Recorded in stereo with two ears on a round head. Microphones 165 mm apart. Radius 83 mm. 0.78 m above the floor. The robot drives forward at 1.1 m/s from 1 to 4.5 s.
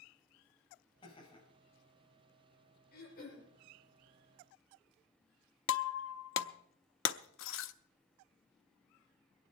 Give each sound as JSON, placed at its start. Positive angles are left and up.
{"t": 1.0, "sound": "laughter", "side_deg": 25, "distance_m": 5.0}
{"t": 2.9, "sound": "throat clearing", "side_deg": 50, "distance_m": 5.5}
{"t": 5.7, "sound": "breaking glass", "side_deg": 75, "distance_m": 0.7}